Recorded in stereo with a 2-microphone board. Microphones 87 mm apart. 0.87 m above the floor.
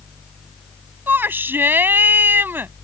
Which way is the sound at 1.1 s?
25° right (ahead or behind).